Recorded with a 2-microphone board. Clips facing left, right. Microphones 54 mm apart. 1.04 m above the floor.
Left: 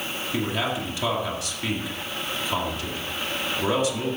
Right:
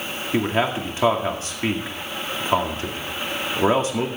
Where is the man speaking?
40° right (ahead or behind), 2 m.